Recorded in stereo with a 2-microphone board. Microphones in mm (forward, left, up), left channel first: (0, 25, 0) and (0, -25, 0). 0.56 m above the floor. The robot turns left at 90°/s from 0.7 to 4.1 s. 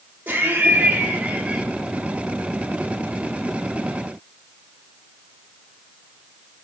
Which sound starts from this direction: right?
Laughter, at 0.3 s.